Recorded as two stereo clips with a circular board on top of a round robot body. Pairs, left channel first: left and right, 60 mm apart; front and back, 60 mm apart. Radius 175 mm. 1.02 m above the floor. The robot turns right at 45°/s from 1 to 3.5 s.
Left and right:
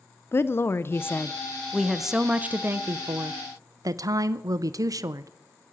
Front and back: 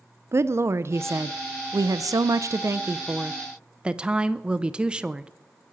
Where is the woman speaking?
140° left, 0.7 m; by 5.3 s 110° right, 0.7 m.